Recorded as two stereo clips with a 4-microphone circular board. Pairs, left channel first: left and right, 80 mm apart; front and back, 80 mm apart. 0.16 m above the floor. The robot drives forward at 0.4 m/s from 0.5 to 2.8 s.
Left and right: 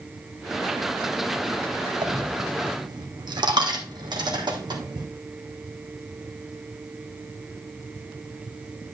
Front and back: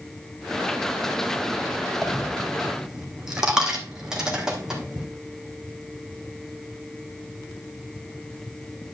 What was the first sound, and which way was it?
A dropped coin, 85° right.